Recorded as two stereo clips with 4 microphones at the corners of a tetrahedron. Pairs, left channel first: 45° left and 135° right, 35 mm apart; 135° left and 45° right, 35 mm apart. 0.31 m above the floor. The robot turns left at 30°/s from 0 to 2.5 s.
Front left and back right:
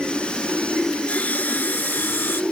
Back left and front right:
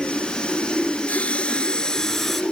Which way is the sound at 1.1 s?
90° left.